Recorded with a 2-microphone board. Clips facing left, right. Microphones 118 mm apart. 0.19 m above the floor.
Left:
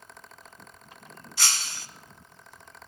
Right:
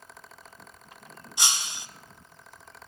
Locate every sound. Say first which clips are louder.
1.4 s breaking glass: right 1 dB; 20° right (ahead or behind), 0.6 m